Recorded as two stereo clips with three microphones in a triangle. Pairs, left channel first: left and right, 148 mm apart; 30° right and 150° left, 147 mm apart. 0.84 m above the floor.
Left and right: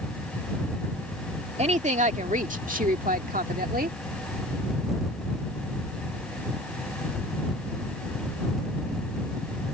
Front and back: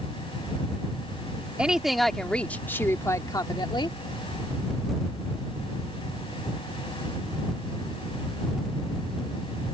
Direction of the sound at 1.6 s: 125° right.